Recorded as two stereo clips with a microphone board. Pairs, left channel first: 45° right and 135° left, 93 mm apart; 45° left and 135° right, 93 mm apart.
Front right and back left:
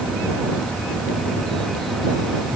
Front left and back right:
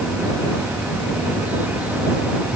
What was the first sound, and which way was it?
Only background noise.